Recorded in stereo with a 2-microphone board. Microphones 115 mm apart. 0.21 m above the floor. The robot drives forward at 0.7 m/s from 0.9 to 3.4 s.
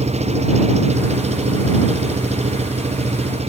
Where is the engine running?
70° right (ahead or behind); by 3.5 s 65° right (ahead or behind).